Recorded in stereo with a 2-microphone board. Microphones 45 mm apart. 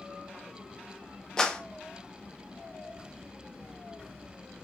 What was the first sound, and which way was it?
A clap, 15° left (ahead or behind).